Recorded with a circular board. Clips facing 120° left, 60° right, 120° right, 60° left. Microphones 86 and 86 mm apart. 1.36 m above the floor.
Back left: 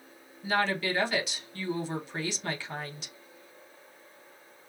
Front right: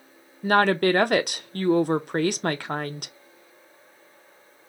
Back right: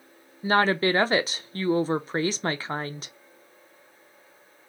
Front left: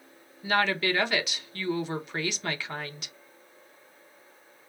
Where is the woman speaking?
70° right, 0.5 m.